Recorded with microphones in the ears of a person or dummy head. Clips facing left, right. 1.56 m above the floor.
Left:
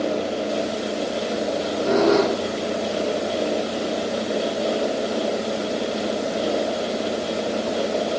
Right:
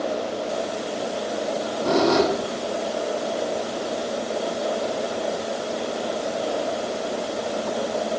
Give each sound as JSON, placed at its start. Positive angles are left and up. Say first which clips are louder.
{"t": 1.5, "sound": "a squeak", "louder": "left 1 dB", "side_deg": -80, "distance_m": 7.5}